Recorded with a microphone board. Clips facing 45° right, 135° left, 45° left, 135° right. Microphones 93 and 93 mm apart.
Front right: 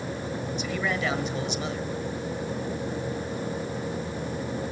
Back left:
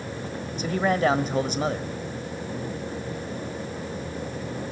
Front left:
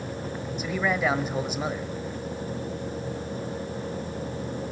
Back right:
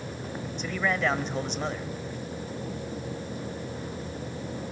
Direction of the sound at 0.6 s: 125° left.